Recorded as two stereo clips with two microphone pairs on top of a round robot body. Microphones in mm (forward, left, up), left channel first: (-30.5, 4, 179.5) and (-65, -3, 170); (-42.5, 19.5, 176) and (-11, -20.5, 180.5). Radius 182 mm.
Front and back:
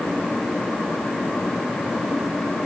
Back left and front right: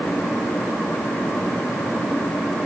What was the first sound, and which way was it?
Only background noise.